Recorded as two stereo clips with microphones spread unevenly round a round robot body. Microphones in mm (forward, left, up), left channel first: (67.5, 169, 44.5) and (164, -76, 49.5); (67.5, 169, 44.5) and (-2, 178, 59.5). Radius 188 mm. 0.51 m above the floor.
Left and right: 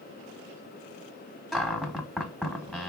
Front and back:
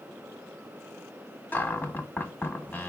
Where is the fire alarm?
No fire alarm in this recording.